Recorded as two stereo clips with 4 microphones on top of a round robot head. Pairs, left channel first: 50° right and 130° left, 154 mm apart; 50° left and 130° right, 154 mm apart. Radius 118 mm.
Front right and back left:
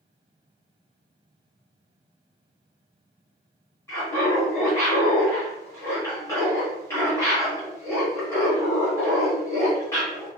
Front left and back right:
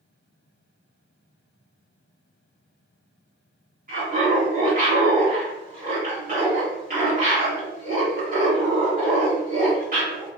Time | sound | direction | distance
3.9 | laughter | 120° right | 1.7 m